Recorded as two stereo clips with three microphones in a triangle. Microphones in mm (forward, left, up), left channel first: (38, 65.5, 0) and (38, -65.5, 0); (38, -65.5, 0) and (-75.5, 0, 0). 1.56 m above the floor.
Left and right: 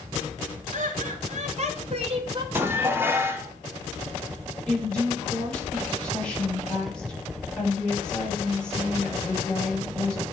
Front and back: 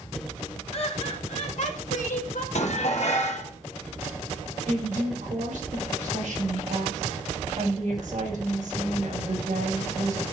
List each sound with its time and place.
0.7 s laughter: 70° right, 3 m; by 2.5 s 40° right, 2 m
2.5 s dishes clattering: 20° right, 1.5 m
4.7 s a woman speaking: 170° left, 5.5 m